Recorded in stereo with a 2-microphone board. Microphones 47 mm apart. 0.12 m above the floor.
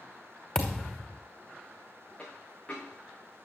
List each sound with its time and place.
0.6 s a thud: 15° left (ahead or behind), 3 m
2.2 s a dropped coin: 20° left (ahead or behind), 5.5 m